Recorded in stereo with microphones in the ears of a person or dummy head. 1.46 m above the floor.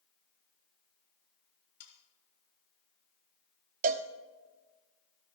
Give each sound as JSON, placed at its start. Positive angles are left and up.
{"t": 1.8, "sound": "sawing", "side_deg": 80, "distance_m": 3.5}
{"t": 3.8, "sound": "a cowbell", "side_deg": -40, "distance_m": 0.7}